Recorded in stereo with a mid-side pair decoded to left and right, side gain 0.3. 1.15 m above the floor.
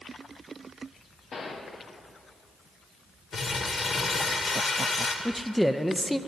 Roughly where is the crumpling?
Ahead left.